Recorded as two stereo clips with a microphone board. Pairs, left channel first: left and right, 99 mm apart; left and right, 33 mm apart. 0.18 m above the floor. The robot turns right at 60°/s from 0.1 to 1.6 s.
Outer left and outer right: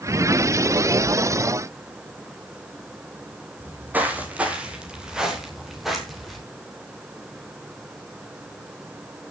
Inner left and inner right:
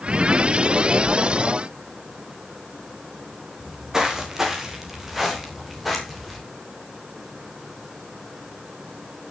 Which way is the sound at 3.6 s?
20° right (ahead or behind).